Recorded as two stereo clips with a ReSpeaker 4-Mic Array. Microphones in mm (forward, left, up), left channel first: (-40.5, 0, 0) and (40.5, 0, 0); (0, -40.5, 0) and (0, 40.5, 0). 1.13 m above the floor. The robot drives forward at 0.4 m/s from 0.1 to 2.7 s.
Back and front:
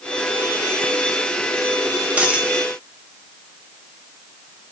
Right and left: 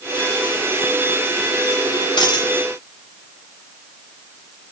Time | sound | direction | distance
2.2 | a dropped coin | 70° right | 1.3 m